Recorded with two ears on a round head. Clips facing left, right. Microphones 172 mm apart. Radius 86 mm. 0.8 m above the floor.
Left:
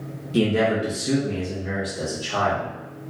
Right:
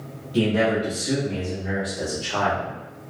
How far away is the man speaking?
About 0.9 m.